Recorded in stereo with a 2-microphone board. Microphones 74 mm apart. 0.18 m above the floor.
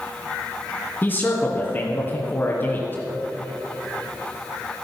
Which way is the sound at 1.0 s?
25° left (ahead or behind).